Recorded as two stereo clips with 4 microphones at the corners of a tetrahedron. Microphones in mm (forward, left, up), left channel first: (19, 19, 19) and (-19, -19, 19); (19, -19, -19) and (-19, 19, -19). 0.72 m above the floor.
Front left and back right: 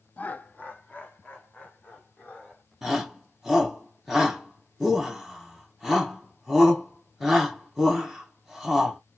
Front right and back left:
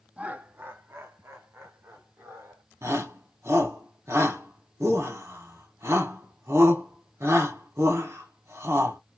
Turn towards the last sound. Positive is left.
turn(degrees=135)